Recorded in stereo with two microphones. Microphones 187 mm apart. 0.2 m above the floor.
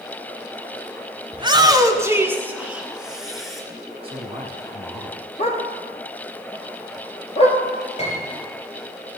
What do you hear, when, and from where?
1.3 s a shout: 25° right (ahead or behind), 1.3 m; by 3.6 s centre (ahead or behind), 2.5 m
4.0 s a man speaking: 30° right (ahead or behind), 1.3 m
5.4 s a dog barking: 35° left (ahead or behind), 1.8 m
8.0 s a piano: 35° left (ahead or behind), 4 m